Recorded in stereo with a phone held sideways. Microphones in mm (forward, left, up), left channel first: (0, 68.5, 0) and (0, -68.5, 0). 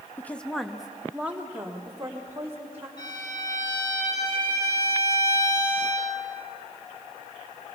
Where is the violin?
35° left (ahead or behind), 7 m.